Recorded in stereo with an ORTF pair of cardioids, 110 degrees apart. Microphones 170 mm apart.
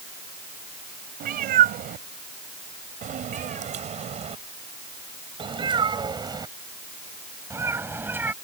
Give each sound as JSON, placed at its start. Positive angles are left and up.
{"t": 1.2, "sound": "a cat meowing", "azimuth_deg": -70}